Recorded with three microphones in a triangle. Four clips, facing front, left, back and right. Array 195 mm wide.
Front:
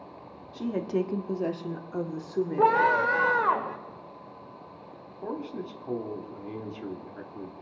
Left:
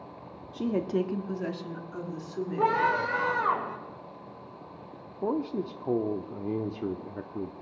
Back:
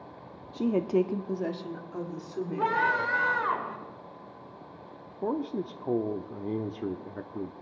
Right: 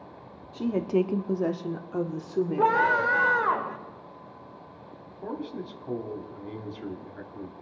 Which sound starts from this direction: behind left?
A man speaking, at 5.2 s.